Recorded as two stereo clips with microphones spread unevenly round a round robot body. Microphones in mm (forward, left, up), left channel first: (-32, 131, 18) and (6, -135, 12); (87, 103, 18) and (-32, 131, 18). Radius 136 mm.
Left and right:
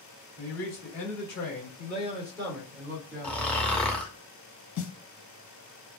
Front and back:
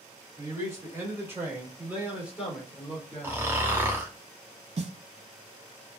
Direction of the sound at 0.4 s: 105° left.